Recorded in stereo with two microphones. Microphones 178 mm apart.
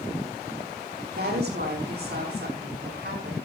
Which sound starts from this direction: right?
A woman speaking, at 1.1 s.